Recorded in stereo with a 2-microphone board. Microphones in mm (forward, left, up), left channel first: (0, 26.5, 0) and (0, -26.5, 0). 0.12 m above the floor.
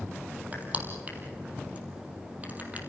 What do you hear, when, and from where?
0.5 s crushing: 30° right (ahead or behind), 3.5 m